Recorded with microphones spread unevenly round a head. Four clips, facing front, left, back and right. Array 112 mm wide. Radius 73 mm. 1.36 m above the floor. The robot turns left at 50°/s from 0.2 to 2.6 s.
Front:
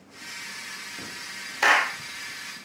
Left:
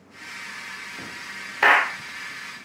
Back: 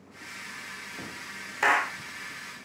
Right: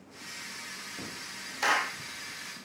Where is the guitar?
No guitar in this recording.